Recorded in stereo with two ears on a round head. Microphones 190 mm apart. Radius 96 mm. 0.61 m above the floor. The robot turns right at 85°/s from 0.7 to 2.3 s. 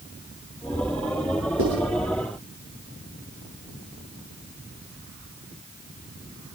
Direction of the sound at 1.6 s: 70° right (ahead or behind).